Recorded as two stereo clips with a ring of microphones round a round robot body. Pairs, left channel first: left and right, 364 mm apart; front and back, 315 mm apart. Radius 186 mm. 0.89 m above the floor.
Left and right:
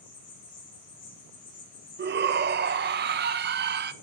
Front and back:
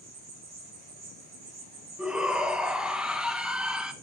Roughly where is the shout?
Right.